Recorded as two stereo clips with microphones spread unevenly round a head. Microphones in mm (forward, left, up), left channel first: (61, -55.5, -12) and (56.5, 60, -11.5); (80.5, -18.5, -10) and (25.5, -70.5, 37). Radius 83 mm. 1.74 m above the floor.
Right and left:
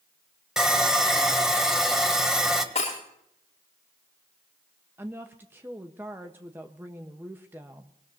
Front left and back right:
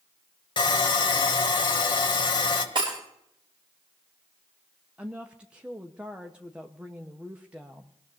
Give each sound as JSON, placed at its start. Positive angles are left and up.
{"t": 0.6, "sound": "sawing", "azimuth_deg": 15, "distance_m": 1.7}
{"t": 2.8, "sound": "breaking glass", "azimuth_deg": -140, "distance_m": 6.5}
{"t": 5.0, "sound": "a woman speaking", "azimuth_deg": 165, "distance_m": 0.9}